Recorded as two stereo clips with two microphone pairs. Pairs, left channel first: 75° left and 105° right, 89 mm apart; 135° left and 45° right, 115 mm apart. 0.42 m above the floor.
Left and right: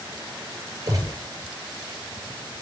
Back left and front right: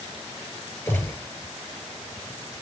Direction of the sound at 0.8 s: 155° right.